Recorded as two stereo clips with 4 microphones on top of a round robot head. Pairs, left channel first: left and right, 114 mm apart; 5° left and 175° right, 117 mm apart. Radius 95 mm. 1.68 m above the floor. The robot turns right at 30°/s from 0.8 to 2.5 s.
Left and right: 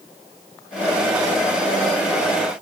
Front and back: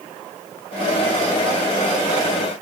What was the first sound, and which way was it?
Only background noise.